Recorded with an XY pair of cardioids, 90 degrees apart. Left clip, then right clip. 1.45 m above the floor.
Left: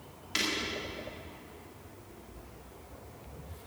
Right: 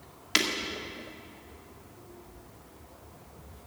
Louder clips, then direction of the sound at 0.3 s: Right 5 dB; 70° right.